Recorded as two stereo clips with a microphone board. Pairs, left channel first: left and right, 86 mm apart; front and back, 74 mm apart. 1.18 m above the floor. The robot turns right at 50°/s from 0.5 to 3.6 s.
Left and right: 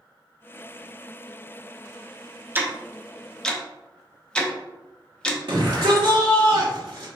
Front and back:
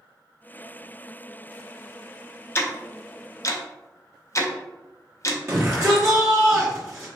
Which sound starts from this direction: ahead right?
Ticking, at 2.5 s.